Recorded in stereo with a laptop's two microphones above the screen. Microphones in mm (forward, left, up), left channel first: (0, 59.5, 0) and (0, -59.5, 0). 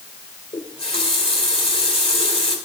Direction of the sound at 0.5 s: 55° left (ahead or behind).